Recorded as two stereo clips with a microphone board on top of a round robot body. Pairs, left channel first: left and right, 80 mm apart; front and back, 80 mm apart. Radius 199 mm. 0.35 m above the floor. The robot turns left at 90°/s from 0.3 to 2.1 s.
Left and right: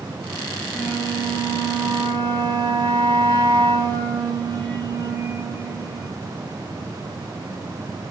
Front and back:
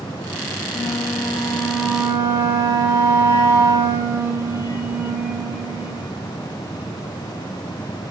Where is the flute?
Straight ahead, 3.5 m; by 6.1 s 120° right, 3.5 m.